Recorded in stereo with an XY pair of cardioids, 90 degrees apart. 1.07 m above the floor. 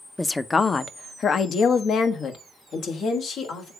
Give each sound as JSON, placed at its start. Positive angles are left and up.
{"t": 0.2, "sound": "a woman speaking", "azimuth_deg": 10, "distance_m": 0.5}